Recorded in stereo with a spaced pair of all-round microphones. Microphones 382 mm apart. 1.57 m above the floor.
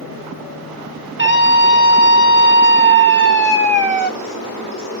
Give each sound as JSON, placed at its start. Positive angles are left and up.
{"t": 1.2, "sound": "a scream", "side_deg": 30, "distance_m": 2.5}